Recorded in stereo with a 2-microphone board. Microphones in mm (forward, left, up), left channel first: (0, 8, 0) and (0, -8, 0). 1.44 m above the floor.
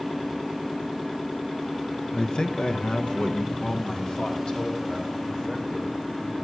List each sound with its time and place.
2.1 s a man speaking: 40° left (ahead or behind), 0.6 m; by 6.3 s 70° left (ahead or behind), 4.5 m